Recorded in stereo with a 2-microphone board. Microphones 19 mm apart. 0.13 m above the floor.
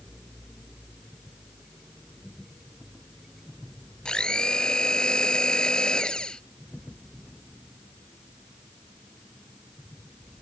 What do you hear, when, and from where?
4.0 s a blender: 55° left (ahead or behind)